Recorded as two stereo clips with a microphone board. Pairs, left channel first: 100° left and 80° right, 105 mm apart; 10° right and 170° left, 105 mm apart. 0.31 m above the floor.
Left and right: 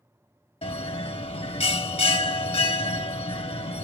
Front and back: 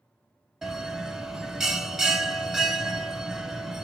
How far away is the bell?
About 0.6 m.